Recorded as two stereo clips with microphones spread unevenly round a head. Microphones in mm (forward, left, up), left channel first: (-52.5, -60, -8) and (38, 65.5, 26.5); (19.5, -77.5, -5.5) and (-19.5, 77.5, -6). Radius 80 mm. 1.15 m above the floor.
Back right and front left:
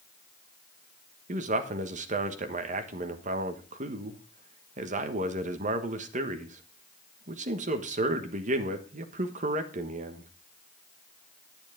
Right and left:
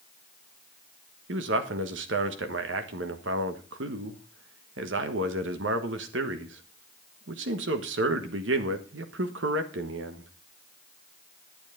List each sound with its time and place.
1.3 s a man speaking: 100° left, 1.4 m